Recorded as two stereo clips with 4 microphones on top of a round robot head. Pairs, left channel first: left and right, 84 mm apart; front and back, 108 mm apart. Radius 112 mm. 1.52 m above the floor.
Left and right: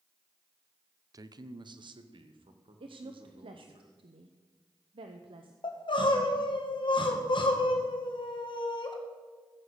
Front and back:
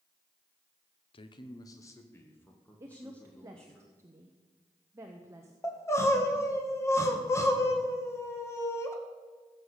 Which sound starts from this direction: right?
A woman speaking, at 2.8 s.